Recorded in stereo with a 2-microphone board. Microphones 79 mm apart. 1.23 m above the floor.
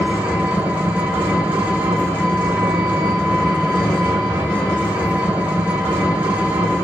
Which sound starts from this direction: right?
An engine running, at 0.0 s.